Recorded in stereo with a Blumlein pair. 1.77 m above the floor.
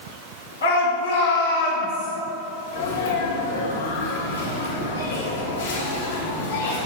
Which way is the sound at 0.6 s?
65° left.